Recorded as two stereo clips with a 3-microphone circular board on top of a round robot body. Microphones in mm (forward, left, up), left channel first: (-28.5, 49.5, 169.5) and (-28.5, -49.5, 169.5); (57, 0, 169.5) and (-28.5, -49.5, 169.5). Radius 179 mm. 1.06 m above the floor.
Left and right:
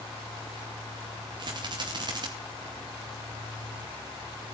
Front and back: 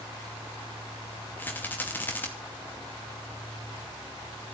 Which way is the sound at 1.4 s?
40° right.